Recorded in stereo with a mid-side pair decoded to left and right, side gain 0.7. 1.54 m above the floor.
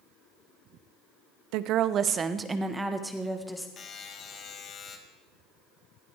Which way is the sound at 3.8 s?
40° left.